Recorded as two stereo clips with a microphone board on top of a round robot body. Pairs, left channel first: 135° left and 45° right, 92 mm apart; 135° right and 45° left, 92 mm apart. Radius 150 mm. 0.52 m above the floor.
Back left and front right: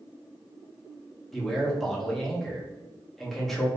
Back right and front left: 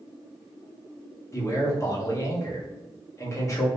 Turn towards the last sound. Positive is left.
turn(degrees=-135)